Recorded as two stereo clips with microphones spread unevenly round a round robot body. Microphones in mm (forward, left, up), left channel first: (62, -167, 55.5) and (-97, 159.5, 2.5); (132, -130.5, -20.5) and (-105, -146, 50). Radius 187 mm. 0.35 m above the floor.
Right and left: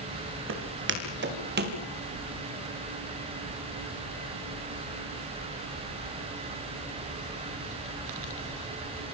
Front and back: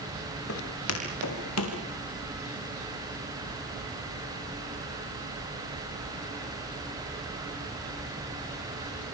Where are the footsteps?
55° left, 5 m; by 1.8 s 50° left, 4.5 m.